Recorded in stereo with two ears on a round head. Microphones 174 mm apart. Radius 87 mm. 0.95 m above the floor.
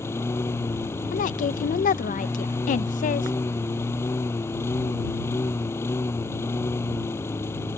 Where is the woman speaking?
40° left (ahead or behind).